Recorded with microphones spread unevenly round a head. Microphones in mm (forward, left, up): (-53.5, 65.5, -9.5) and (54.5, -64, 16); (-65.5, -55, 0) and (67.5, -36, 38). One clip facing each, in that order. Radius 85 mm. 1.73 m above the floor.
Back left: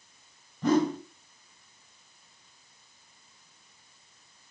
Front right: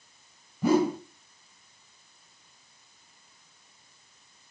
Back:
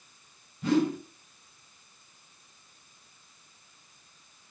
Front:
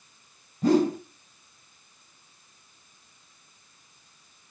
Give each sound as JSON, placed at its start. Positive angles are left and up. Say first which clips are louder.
{"t": 0.6, "sound": "a whoosh", "louder": "front right 1 dB, front 4 dB", "azimuth_deg": 20, "distance_m": 0.7}